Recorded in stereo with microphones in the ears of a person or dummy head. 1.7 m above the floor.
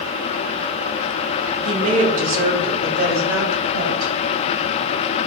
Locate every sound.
1.6 s a woman speaking: 35° right (ahead or behind), 2 m; by 4.1 s 65° right (ahead or behind), 5 m